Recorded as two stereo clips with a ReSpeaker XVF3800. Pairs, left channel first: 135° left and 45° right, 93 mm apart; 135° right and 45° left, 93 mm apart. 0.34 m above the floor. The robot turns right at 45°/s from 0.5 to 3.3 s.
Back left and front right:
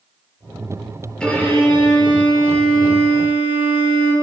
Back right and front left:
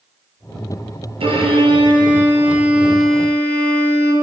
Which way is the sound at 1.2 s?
55° left.